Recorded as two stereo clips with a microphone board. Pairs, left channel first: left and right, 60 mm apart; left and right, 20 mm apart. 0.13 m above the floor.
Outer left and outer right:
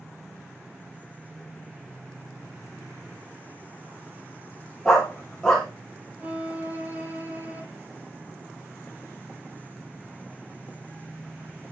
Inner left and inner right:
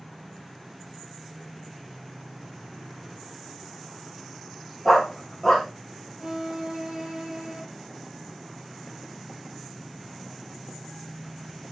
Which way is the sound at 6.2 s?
30° right (ahead or behind).